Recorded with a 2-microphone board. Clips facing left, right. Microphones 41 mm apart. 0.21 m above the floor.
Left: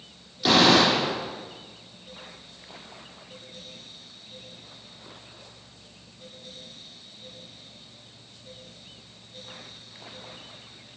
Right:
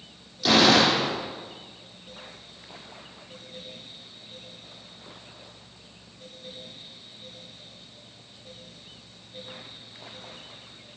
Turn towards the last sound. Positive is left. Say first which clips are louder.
# even
turn(degrees=20)  # may be behind; listen again after turning